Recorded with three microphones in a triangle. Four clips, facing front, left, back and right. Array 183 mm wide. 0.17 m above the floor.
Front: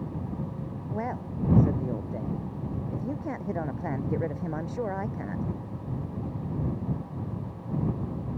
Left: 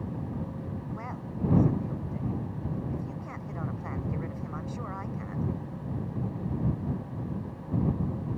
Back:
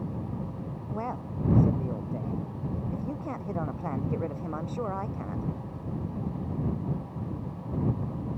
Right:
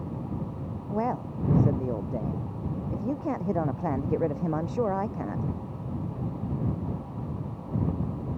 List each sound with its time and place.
0.9 s a man speaking: 75° right